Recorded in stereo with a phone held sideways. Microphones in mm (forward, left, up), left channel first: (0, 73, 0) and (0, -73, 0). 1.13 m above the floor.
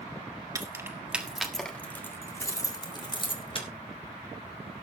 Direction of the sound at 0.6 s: 25° right (ahead or behind).